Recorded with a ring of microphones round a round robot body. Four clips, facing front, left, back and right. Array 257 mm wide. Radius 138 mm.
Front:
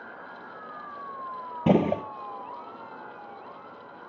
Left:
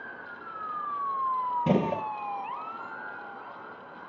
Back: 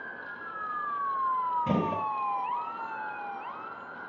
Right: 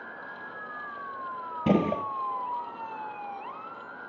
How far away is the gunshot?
About 1.2 m.